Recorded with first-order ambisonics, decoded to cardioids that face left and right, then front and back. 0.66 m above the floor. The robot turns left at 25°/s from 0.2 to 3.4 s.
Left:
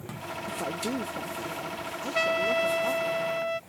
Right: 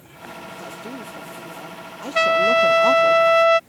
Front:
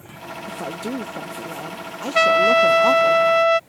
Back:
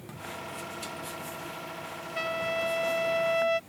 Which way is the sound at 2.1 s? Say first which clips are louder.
Right 10 dB, front 16 dB; 25° right.